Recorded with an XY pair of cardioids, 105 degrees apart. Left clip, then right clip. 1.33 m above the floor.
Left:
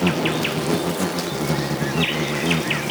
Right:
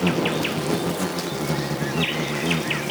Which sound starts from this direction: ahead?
An insect, at 0.0 s.